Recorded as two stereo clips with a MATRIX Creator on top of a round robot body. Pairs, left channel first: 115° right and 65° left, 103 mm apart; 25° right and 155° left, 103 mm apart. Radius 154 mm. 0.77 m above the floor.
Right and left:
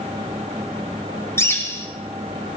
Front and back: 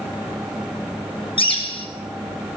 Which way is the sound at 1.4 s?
50° right.